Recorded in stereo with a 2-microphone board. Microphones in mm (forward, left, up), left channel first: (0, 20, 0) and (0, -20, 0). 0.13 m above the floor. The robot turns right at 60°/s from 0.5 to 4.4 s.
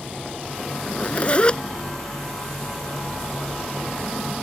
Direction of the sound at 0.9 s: 90° left.